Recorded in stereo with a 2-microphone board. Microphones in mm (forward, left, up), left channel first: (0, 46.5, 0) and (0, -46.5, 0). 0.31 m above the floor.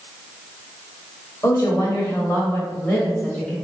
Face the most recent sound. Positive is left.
turn(degrees=10)  # may be behind; listen again after turning